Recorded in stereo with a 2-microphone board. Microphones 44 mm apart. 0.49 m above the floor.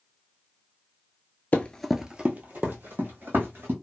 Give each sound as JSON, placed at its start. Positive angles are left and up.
{"t": 1.5, "sound": "running footsteps", "side_deg": 35, "distance_m": 0.5}